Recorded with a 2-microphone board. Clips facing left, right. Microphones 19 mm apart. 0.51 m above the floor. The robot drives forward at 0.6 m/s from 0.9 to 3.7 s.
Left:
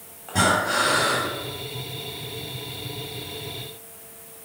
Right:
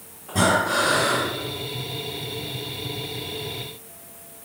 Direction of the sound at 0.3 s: 40° left (ahead or behind).